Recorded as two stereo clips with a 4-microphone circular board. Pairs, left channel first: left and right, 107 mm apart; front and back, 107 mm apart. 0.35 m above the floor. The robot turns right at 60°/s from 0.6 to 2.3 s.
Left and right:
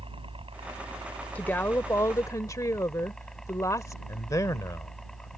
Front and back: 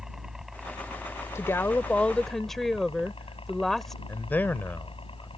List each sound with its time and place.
0.0 s a helicopter: 95° right; by 5.4 s 5° left
1.4 s a woman speaking: 30° left; by 4.0 s 85° left
4.1 s a man speaking: 60° left